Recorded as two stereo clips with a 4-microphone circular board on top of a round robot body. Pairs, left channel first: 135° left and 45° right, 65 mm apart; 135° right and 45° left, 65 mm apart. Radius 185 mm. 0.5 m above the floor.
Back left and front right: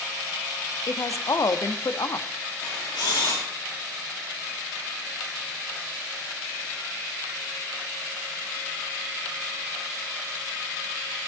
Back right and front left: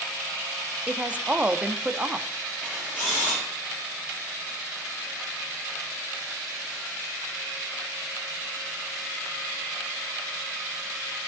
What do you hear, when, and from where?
0.9 s a woman speaking: 115° left, 1.0 m
2.6 s a camera shutter: 125° left, 5.5 m